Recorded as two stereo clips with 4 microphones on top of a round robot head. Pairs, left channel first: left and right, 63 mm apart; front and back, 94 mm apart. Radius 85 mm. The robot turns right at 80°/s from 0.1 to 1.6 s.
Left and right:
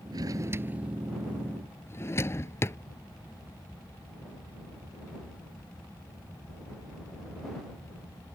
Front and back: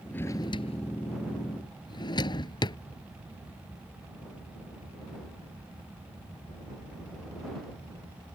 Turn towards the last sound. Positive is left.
turn(degrees=45)